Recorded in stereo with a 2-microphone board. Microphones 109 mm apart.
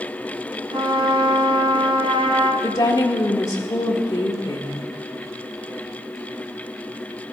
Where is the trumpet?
55° right (ahead or behind), 1.5 m.